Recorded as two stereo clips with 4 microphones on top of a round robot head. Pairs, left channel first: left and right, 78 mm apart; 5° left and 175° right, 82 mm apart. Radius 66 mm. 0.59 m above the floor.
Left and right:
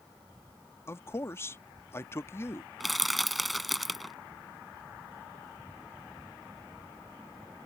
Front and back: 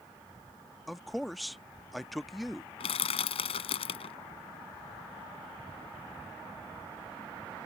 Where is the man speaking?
95° left.